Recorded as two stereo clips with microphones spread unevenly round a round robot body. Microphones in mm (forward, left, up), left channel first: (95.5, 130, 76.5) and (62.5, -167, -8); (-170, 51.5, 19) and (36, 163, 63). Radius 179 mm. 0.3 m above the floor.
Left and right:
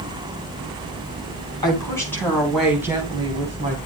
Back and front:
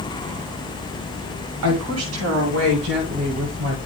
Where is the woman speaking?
Straight ahead, 3 m; by 3.8 s 50° right, 2.5 m.